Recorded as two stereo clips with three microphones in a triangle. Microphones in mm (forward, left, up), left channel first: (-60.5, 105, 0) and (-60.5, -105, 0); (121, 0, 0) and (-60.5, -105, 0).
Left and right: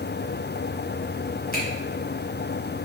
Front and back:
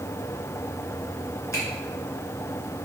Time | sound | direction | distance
1.5 | a finger snap | 100° left | 2 m